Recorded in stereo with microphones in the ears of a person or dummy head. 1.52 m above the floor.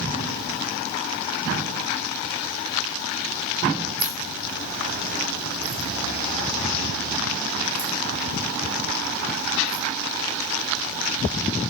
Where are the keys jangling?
15° right (ahead or behind), 4 m; by 9.8 s 20° left (ahead or behind), 7 m.